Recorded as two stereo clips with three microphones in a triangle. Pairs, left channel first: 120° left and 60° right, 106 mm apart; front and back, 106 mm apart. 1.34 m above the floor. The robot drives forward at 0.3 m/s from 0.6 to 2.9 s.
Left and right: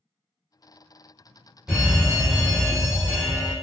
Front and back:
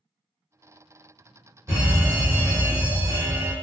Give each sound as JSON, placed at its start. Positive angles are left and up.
{"t": 1.7, "sound": "a fire alarm", "azimuth_deg": -135, "distance_m": 1.5}